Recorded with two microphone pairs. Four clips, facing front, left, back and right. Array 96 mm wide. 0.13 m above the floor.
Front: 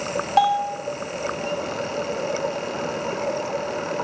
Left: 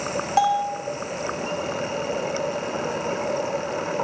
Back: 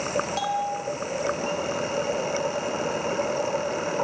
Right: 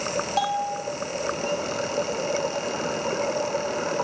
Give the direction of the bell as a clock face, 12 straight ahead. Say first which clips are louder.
Left 6 dB, front 7 dB; 11 o'clock.